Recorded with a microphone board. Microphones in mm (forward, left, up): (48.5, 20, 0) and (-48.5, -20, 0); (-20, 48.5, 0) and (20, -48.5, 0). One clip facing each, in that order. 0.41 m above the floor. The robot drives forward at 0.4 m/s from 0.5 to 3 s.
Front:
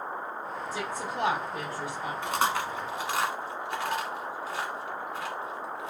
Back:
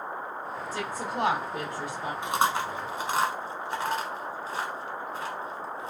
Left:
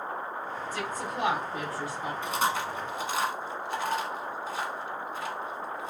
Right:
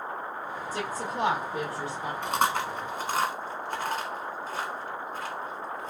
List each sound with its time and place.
0.7 s a woman speaking: 60° right, 0.9 m; by 2.1 s 120° right, 0.9 m
2.2 s chewing: 90° right, 0.9 m; by 5.9 s 110° right, 0.9 m